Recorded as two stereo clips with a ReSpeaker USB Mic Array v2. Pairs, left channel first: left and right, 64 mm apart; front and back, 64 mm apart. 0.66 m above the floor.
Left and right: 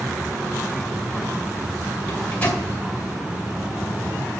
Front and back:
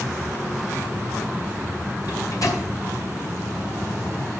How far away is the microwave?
About 2 m.